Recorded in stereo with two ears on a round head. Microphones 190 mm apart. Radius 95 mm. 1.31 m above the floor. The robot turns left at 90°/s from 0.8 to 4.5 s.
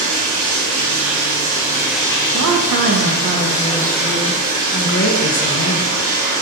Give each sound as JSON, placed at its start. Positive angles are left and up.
{"t": 0.0, "sound": "running water", "azimuth_deg": -75, "distance_m": 1.2}
{"t": 2.3, "sound": "a woman speaking", "azimuth_deg": -60, "distance_m": 0.6}